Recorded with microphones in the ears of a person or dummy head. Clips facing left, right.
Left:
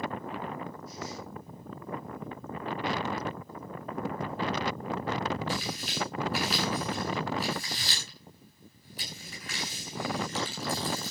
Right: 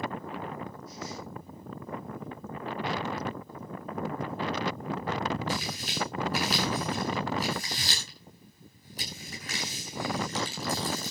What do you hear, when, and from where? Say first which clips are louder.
5.5 s tearing paper: even; 35° right (ahead or behind), 9.5 m